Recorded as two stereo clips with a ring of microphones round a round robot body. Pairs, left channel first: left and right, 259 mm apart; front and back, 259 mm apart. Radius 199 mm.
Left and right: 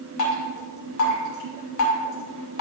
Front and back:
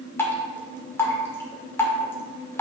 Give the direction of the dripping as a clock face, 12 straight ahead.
9 o'clock.